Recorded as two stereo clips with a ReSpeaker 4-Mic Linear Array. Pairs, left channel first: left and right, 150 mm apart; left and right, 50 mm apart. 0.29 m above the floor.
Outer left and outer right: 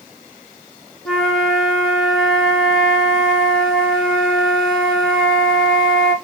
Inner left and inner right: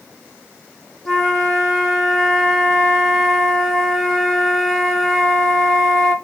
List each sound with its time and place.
1.1 s a flute: 5° left (ahead or behind), 0.9 m